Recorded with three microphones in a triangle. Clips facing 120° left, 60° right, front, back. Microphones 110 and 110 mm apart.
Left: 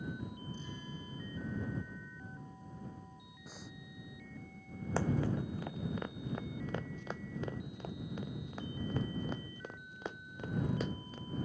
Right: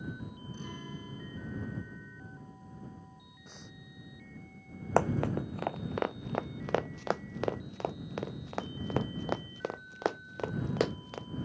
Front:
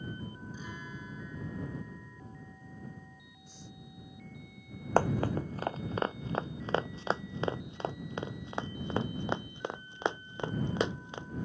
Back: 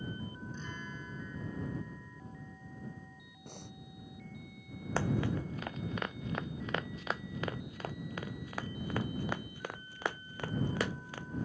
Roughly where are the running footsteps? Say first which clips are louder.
Right 6 dB, front 5 dB; ahead right.